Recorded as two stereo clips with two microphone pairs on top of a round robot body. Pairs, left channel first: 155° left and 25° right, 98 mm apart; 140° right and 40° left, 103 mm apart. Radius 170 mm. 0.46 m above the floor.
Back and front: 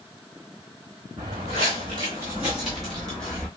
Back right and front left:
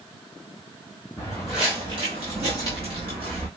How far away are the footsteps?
About 0.8 m.